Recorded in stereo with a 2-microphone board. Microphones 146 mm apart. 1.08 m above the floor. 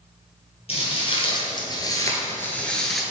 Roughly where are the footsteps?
Left.